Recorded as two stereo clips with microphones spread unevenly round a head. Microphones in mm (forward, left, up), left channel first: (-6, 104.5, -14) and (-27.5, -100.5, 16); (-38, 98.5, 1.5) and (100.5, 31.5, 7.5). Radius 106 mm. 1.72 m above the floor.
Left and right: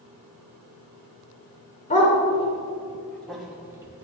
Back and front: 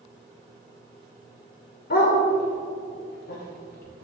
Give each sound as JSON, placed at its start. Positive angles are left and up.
{"t": 1.9, "sound": "a dog barking", "azimuth_deg": 140, "distance_m": 3.0}